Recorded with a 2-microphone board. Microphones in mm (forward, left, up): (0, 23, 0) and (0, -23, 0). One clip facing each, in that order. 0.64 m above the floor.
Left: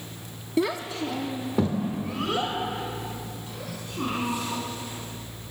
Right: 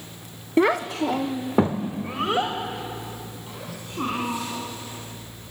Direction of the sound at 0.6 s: 40° right (ahead or behind).